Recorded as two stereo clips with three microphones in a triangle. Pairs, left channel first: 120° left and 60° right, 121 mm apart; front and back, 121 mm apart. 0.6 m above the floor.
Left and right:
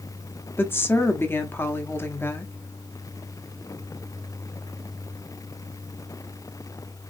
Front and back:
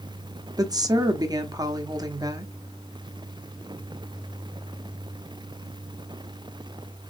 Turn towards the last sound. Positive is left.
turn(degrees=175)